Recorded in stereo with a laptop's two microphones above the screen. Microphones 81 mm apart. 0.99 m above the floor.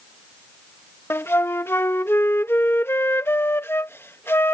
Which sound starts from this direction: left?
A flute, at 1.1 s.